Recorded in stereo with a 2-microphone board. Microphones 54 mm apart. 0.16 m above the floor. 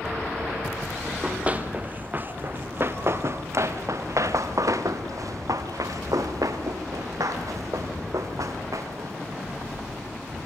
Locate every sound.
1.1 s running footsteps: 20° right (ahead or behind), 3 m; by 9.1 s 70° right (ahead or behind), 4.5 m